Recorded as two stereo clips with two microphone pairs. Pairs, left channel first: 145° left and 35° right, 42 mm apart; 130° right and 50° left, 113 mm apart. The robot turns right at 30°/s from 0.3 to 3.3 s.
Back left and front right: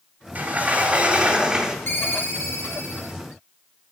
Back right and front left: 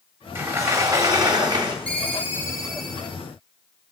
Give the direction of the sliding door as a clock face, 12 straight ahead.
12 o'clock.